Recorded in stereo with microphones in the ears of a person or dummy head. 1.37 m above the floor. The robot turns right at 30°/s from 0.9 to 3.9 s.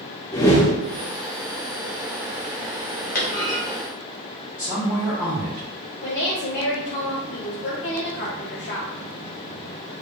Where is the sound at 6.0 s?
40° left (ahead or behind), 0.6 m.